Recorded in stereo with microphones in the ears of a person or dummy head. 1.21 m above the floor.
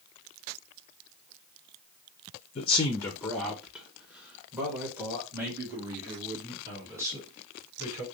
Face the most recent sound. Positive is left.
turn(degrees=-20)  # may be behind; listen again after turning